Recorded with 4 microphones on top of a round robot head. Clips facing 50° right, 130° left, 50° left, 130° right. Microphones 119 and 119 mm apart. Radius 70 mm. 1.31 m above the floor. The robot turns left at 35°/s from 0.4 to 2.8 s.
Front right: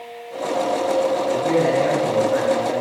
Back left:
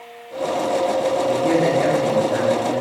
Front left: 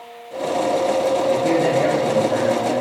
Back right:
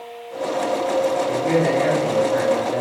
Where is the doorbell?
No doorbell in this recording.